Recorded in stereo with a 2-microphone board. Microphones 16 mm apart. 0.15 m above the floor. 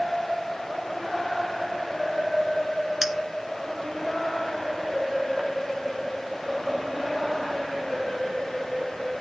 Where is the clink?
20° right (ahead or behind), 1.1 m.